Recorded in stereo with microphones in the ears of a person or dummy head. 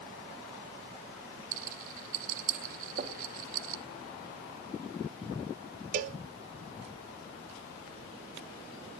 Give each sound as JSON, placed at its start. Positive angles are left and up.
{"t": 1.5, "sound": "a rattle", "side_deg": -50, "distance_m": 1.6}
{"t": 3.0, "sound": "knocking", "side_deg": -55, "distance_m": 4.0}
{"t": 5.9, "sound": "a cowbell", "side_deg": -45, "distance_m": 1.2}